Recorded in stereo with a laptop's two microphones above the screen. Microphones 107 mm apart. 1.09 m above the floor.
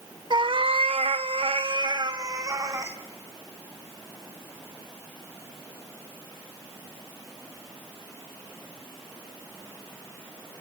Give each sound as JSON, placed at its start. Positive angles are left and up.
{"t": 0.3, "sound": "a cat meowing", "side_deg": -50, "distance_m": 0.9}